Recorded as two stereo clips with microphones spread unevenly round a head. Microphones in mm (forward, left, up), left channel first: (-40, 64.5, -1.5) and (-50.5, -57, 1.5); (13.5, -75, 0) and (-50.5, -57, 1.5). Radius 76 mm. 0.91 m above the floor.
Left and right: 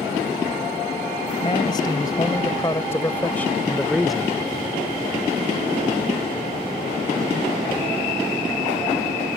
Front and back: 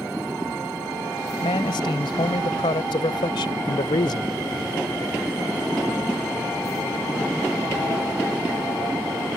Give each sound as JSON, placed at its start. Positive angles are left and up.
{"t": 1.4, "sound": "a man speaking", "azimuth_deg": 20}